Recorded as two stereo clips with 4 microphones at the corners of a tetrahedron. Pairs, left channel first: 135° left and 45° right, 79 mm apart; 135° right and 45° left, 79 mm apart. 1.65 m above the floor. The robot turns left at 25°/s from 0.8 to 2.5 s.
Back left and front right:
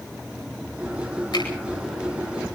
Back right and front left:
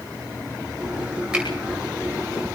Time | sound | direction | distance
1.3 | a finger snap | 125° left | 9 m